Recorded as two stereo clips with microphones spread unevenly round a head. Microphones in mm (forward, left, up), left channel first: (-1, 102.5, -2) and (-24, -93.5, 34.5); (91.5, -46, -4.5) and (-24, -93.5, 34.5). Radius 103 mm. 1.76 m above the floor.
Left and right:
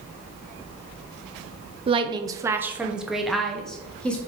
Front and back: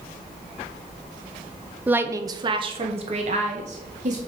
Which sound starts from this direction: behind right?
A woman speaking, at 1.9 s.